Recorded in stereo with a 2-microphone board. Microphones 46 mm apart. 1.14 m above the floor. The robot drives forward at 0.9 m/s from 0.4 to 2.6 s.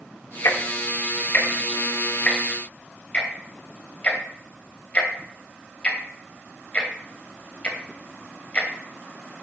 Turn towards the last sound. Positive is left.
turn(degrees=20)  # may be behind; listen again after turning